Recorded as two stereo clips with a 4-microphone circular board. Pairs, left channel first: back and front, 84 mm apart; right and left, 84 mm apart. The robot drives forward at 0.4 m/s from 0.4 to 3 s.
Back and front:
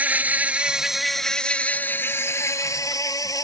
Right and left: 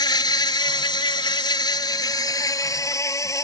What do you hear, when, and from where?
0.0 s an insect: 70° right; by 3.4 s 140° right